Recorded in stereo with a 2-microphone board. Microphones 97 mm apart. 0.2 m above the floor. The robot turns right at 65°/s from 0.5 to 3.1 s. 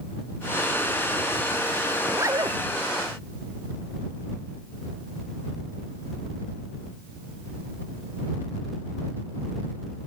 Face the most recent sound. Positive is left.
turn(degrees=-90)